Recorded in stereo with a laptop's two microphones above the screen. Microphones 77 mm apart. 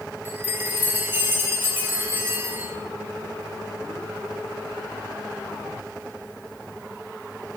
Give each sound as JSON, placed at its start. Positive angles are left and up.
{"t": 0.2, "sound": "a chime", "side_deg": -25, "distance_m": 5.5}